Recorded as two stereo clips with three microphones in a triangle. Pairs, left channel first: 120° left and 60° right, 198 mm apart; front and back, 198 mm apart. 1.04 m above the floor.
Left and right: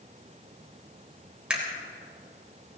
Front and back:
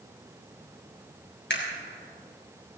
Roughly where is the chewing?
No chewing in this recording.